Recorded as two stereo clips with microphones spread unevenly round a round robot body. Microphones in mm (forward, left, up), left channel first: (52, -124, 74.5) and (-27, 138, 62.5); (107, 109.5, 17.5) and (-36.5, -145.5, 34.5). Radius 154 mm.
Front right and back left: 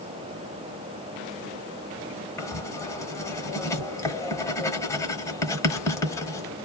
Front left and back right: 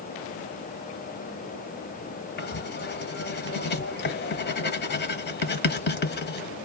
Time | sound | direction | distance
2.4 | writing | 5° left | 1.0 m